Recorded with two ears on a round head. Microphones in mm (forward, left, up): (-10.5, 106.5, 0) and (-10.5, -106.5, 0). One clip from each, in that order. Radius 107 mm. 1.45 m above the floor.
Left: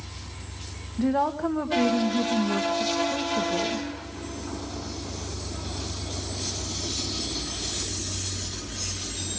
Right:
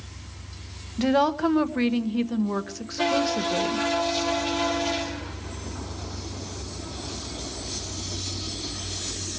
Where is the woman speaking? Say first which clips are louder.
Right 3 dB; 85° right, 1.5 m.